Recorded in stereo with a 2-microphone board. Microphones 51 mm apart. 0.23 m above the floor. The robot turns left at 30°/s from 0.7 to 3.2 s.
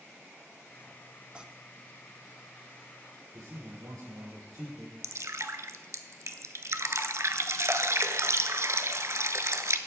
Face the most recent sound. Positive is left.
turn(degrees=-70)  # may be behind; listen again after turning